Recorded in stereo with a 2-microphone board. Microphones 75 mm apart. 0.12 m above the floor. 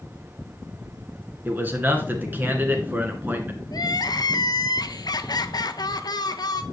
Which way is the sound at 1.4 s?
25° right (ahead or behind).